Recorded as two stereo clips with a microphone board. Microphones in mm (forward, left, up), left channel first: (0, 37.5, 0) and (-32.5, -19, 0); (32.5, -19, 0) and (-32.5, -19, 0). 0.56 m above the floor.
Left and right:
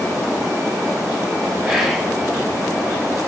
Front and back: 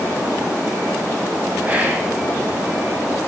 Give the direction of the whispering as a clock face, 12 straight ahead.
7 o'clock.